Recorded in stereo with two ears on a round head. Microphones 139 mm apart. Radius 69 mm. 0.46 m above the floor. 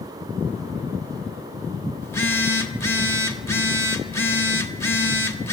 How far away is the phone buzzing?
About 1.1 m.